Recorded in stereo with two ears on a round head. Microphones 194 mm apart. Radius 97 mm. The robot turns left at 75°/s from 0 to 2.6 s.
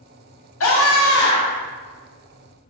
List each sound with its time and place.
0.6 s a scream: 105° left, 1.1 m; by 1.6 s 30° left, 1.1 m